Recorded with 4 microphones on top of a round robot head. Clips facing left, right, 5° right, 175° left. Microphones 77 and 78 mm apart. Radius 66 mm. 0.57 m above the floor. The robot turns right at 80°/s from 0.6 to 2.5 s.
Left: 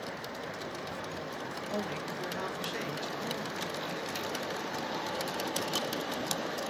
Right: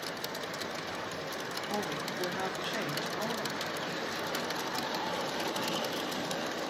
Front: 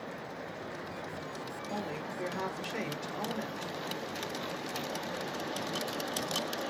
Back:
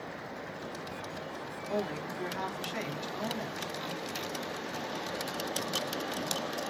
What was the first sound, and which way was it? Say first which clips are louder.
A woman speaking: right 1 dB, back 5 dB; 160° right.